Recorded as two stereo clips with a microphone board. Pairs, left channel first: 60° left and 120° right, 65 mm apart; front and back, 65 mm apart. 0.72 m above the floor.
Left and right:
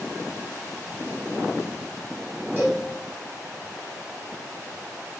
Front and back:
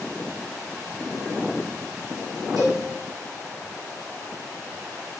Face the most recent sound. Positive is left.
turn(degrees=180)